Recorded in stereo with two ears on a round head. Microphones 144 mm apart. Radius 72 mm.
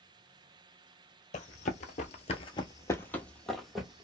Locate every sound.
1.3 s running footsteps: 50° left (ahead or behind), 0.7 m; by 4.0 s 5° right (ahead or behind), 1.1 m